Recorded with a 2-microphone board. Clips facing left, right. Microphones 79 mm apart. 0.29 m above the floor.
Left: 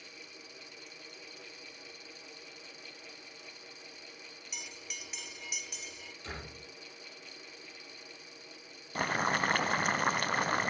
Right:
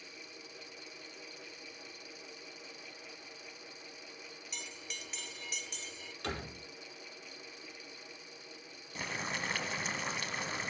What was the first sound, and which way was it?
A bell, 5° left (ahead or behind).